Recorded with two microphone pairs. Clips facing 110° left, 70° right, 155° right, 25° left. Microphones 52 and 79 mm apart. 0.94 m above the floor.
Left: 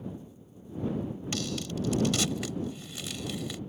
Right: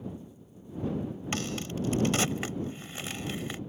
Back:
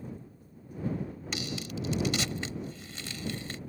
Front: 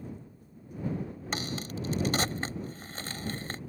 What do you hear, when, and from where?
1.3 s a crack: 20° right